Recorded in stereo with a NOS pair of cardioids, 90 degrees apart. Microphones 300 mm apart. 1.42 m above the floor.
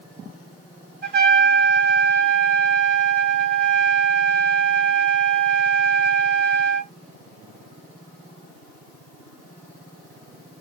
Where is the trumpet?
35° right, 3 m.